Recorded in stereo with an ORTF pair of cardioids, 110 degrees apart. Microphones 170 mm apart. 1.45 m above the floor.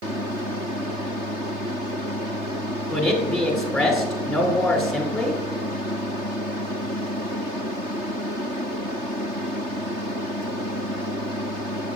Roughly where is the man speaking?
Ahead.